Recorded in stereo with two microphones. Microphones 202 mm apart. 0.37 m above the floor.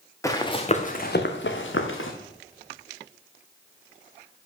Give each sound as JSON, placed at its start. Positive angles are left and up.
{"t": 0.2, "sound": "running footsteps", "side_deg": 15, "distance_m": 1.7}